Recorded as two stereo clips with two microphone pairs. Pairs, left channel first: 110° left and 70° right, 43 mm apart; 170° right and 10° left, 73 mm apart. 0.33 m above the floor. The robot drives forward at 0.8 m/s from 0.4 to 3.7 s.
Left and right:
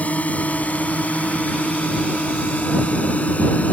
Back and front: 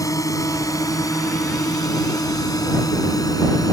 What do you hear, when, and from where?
0.0 s a drone: 160° left; by 3.7 s 165° left